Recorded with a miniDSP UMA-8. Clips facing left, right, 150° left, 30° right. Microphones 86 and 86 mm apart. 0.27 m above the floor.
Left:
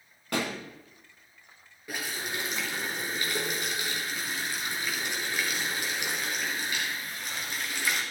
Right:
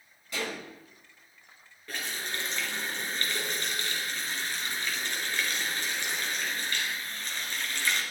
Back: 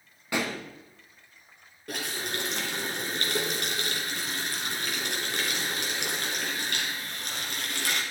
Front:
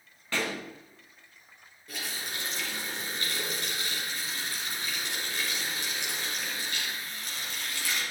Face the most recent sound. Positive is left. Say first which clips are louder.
# left 2 dB, back 5 dB
turn(degrees=170)